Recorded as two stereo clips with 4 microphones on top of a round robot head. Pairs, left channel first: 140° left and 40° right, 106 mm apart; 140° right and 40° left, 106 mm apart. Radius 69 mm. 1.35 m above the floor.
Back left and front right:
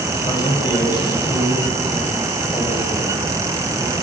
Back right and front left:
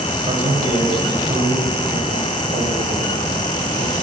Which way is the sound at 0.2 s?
85° left.